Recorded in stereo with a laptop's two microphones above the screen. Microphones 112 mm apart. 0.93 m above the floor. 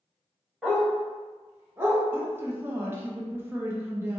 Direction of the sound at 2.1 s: 20° right (ahead or behind).